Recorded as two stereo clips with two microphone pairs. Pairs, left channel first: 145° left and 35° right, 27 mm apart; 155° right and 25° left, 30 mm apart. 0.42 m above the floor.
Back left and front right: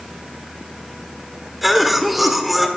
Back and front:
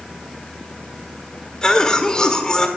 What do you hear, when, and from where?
1.6 s a cough: 125° right, 1.5 m